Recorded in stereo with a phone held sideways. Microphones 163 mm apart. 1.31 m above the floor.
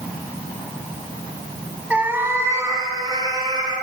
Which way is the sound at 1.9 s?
10° right (ahead or behind).